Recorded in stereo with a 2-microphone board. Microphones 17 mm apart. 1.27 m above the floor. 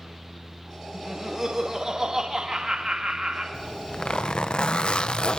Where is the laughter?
30° right (ahead or behind), 2 m; by 3.4 s 70° right (ahead or behind), 2 m.